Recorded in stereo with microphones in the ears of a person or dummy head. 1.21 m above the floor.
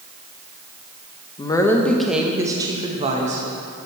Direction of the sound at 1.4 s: 20° left (ahead or behind).